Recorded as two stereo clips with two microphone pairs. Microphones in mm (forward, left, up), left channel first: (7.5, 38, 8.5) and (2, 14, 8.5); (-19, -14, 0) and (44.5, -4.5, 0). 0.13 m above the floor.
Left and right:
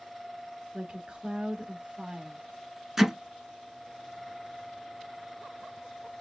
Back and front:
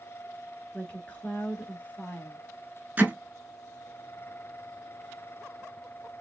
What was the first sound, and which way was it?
A woman speaking, 115° right.